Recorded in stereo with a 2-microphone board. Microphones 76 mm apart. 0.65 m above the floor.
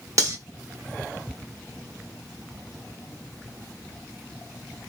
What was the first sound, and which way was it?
Cutlery clinking, 45° right (ahead or behind).